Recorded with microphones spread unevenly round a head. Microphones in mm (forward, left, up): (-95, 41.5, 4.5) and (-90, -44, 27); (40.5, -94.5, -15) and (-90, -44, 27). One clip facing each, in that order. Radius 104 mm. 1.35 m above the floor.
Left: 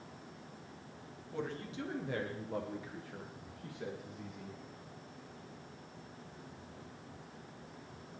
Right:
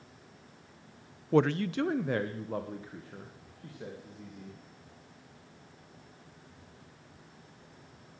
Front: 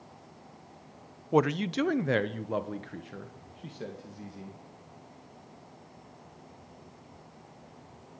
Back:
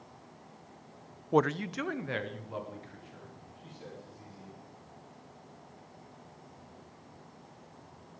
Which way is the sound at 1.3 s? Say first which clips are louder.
Right 15 dB, front 2 dB; 95° right.